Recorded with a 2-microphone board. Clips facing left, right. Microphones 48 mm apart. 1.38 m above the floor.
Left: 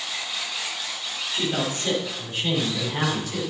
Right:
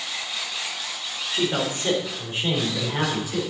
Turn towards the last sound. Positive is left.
turn(degrees=-20)  # may be behind; listen again after turning